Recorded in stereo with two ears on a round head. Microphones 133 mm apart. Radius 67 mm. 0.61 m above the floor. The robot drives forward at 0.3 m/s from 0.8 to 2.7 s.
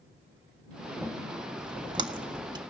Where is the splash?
35° right (ahead or behind), 1.5 m; by 2.6 s 30° right (ahead or behind), 1.8 m.